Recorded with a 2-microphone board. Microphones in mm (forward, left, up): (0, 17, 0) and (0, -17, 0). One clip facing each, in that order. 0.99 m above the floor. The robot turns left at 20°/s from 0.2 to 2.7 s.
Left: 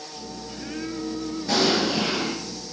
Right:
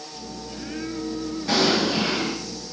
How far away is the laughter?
No laughter in this recording.